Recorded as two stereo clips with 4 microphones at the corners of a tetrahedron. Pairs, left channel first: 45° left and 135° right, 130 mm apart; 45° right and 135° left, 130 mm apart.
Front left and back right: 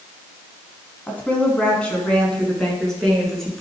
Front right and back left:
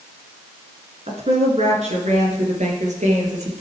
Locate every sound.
1.1 s a woman speaking: 120° left, 2 m; by 3.6 s 130° left, 3.5 m